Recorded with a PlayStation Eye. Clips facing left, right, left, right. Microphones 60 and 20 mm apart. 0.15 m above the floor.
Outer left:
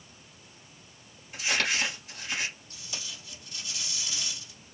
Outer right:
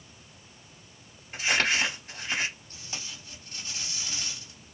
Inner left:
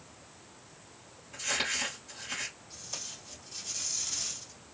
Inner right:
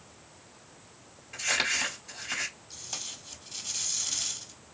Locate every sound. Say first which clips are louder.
1.3 s crumpling: outer right 3 dB, inner right 4 dB; 35° right (ahead or behind), 3 m
2.7 s tape being pulled: outer right 1 dB, inner right 3 dB; 40° right (ahead or behind), 3 m